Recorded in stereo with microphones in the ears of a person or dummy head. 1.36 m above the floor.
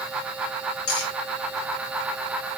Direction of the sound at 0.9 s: 75° left (ahead or behind).